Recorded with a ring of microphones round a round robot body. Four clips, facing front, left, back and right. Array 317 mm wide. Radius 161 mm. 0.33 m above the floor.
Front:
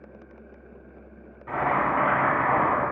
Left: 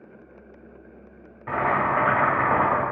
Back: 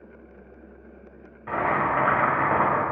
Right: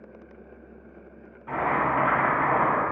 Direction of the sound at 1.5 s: 125° left.